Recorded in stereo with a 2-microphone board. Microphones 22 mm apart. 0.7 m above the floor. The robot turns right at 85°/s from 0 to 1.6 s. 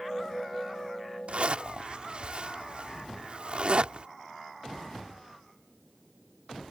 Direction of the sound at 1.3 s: 65° right (ahead or behind).